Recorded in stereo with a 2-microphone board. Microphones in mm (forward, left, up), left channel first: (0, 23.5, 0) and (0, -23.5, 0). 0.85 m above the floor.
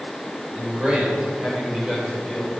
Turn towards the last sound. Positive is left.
turn(degrees=0)  # may be behind; listen again after turning